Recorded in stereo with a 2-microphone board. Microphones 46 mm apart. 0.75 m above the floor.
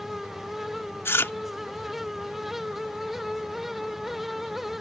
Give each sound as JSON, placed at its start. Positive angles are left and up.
{"t": 1.1, "sound": "chewing", "side_deg": 65}